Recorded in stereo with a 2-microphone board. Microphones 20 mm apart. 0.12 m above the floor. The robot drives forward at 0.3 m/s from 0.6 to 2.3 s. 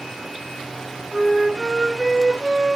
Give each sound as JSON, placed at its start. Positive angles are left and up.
{"t": 1.1, "sound": "a flute", "side_deg": -50, "distance_m": 0.6}